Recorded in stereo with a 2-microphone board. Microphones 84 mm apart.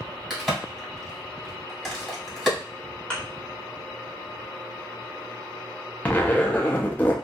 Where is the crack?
Centre (ahead or behind), 1.7 m.